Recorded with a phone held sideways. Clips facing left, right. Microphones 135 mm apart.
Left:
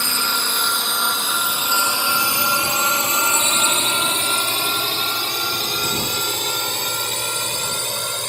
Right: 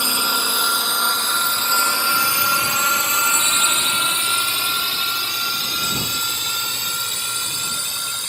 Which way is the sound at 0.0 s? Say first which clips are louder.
Right 1 dB; 20° right (ahead or behind).